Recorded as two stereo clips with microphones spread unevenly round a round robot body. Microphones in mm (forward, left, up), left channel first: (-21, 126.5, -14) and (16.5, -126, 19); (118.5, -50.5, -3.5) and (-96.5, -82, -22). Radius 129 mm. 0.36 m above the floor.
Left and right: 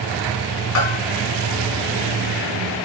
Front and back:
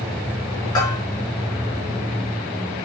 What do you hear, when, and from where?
0.8 s a bell: 85° left, 5 m